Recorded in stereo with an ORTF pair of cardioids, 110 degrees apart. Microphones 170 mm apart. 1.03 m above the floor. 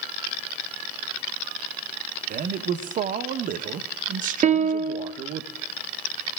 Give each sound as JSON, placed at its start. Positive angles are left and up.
{"t": 2.3, "sound": "a man speaking", "azimuth_deg": -55, "distance_m": 0.9}
{"t": 4.4, "sound": "a piano", "azimuth_deg": -45, "distance_m": 1.1}